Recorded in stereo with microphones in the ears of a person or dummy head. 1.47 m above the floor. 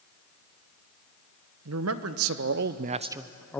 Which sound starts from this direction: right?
A man speaking, at 1.6 s.